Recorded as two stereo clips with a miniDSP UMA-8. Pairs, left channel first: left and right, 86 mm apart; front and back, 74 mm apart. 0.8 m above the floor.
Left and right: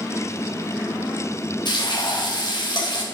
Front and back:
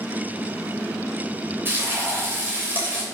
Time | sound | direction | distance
1.6 | frying | 120° left | 3.5 m